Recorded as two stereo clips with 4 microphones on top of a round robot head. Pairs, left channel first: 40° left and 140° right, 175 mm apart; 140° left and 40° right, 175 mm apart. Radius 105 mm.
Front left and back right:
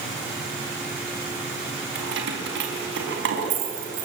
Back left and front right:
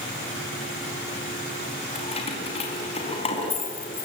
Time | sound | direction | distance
1.9 | keys jangling | 160° right | 4.5 m